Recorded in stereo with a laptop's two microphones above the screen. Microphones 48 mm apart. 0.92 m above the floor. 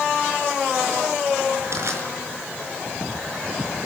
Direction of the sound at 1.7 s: 65° right (ahead or behind).